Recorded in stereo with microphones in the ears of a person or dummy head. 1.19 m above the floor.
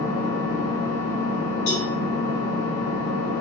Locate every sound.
0.0 s an engine running: 50° left (ahead or behind), 1.2 m
1.7 s a cowbell: 75° left (ahead or behind), 2 m